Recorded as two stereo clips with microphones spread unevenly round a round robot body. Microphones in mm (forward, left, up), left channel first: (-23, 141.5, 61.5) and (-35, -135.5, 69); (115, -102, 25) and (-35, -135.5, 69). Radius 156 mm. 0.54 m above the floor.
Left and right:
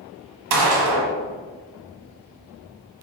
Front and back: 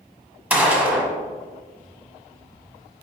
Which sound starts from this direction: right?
A gunshot, at 0.5 s.